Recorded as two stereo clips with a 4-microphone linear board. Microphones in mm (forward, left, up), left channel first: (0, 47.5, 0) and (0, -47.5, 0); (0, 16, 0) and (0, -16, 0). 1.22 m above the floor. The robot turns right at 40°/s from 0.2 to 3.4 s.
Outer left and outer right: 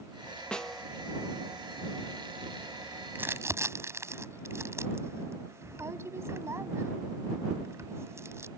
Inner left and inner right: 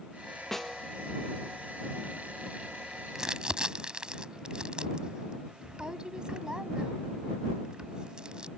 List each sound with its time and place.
0.5 s a snare drum: 10° left (ahead or behind); by 0.9 s centre (ahead or behind)
3.1 s crumpling: 20° right (ahead or behind); by 8.5 s 30° right (ahead or behind)